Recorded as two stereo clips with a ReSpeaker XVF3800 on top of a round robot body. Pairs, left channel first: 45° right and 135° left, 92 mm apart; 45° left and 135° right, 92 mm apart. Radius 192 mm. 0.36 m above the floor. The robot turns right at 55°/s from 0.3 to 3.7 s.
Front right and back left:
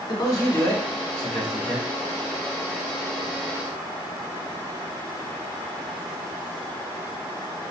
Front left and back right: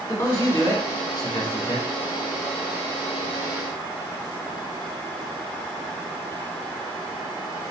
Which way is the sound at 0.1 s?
15° right.